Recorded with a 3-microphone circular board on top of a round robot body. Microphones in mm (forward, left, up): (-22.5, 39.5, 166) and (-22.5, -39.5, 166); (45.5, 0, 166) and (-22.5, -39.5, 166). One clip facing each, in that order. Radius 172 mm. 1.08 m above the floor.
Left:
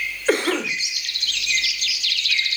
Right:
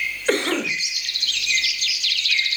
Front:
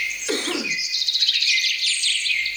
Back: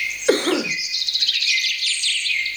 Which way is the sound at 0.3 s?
170° left.